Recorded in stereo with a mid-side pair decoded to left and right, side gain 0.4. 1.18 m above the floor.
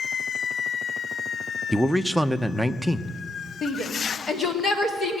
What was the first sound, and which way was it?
A man speaking, 5° left.